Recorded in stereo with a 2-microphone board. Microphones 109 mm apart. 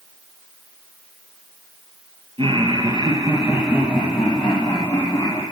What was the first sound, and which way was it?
Laughter, 55° right (ahead or behind).